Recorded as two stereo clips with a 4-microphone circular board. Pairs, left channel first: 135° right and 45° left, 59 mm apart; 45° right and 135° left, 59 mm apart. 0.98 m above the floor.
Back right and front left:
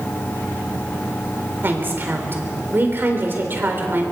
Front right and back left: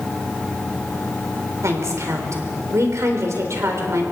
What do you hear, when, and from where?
1.6 s a woman speaking: 100° left, 4 m